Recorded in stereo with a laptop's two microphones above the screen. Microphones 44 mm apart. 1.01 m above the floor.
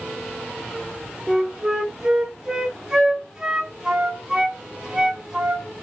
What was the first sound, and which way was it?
A flute, 15° right (ahead or behind).